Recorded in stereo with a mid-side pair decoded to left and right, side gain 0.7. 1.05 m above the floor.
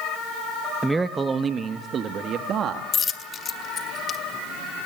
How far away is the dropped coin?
About 1.7 m.